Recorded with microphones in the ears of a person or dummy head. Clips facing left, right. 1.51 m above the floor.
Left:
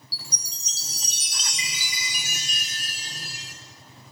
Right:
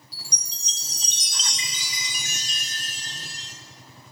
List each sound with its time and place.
0.1 s a chime: 10° left (ahead or behind), 0.5 m